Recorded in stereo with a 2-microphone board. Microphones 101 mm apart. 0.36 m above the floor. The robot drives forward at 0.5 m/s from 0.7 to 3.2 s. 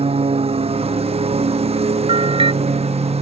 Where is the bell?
65° right (ahead or behind).